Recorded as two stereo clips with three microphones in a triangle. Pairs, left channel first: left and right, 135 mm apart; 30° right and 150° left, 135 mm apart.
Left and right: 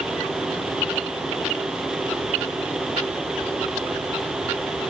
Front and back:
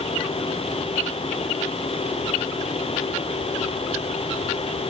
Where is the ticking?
No ticking in this recording.